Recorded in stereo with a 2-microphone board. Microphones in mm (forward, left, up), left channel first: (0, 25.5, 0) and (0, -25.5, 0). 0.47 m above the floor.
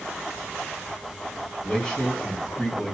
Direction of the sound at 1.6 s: 15° left (ahead or behind).